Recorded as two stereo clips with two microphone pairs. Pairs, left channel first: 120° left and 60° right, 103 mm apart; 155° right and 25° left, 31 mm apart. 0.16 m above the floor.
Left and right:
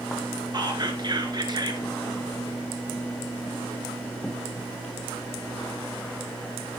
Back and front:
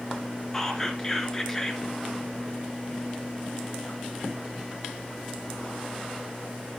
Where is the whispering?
85° right, 1.8 m.